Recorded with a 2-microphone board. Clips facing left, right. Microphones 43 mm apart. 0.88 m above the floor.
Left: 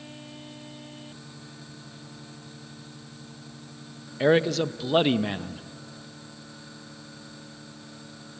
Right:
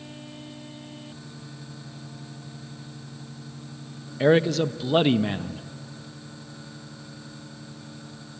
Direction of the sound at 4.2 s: Centre (ahead or behind).